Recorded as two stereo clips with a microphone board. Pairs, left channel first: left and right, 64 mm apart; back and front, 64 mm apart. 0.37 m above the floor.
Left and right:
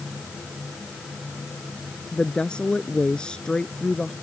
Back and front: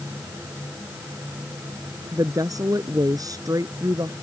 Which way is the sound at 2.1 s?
15° left.